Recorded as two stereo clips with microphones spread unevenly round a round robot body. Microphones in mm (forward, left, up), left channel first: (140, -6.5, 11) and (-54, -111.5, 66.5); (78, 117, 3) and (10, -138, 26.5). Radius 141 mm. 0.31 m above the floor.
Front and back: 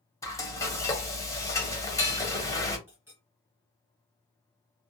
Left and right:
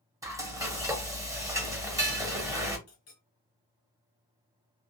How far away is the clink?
About 1.1 m.